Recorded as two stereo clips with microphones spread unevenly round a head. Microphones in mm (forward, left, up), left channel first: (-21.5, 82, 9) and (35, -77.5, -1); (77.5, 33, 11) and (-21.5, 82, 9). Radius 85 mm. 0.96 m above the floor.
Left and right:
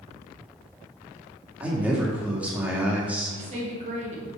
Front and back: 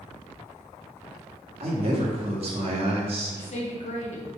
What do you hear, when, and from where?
1.6 s a man speaking: 155° right, 2 m
3.3 s a woman speaking: 25° right, 2.5 m